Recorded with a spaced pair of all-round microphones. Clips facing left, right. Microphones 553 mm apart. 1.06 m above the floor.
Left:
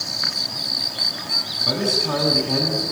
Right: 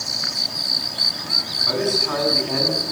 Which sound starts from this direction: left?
A man speaking, at 1.7 s.